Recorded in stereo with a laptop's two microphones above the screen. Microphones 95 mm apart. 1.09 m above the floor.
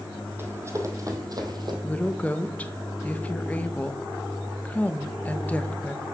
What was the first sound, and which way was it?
Running footsteps, 25° right (ahead or behind).